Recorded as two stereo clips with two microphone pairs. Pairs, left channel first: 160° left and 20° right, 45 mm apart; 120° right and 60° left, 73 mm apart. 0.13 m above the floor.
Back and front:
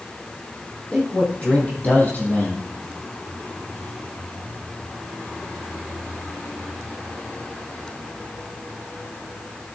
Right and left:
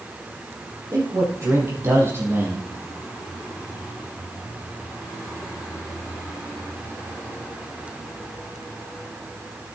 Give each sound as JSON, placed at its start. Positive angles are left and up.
{"t": 0.9, "sound": "a man speaking", "azimuth_deg": 100, "distance_m": 5.5}